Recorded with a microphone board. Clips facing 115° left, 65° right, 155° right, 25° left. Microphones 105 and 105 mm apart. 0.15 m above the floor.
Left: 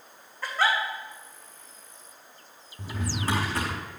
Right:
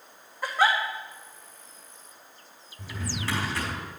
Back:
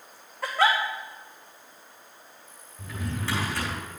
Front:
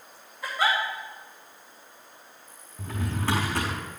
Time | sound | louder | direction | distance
0.4 | a giggle | right 2 dB, back 3 dB | 145° right | 2.5 m
2.8 | a drawer | left 3 dB, front 3 dB | 65° left | 4.5 m